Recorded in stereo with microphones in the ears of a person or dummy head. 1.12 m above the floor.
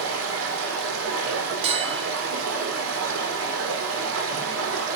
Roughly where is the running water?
Right.